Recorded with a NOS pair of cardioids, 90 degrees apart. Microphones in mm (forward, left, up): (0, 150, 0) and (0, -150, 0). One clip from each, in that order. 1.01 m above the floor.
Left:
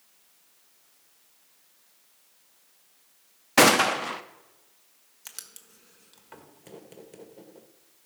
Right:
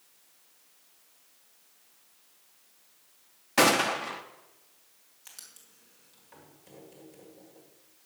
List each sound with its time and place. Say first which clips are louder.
3.6 s a gunshot: left 4 dB; 25° left, 0.7 m
5.2 s writing: left 6 dB; 60° left, 1.6 m